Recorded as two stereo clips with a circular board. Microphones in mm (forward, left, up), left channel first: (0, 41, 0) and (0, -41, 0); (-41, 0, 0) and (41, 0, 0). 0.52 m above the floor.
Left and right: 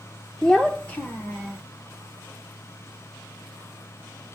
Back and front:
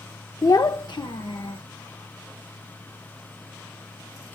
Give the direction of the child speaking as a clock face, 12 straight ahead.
6 o'clock.